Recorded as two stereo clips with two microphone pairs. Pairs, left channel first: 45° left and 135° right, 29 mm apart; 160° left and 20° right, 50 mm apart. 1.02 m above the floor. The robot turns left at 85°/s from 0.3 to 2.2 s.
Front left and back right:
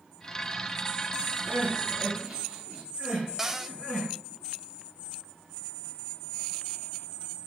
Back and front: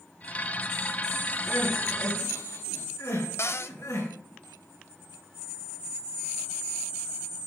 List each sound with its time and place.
1.4 s crying: 135° right, 5.5 m; by 4.1 s 160° left, 5.5 m
3.4 s a cupboard door: 155° left, 0.6 m